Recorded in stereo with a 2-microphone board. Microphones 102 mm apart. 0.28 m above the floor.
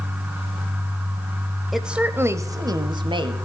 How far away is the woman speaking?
About 0.9 m.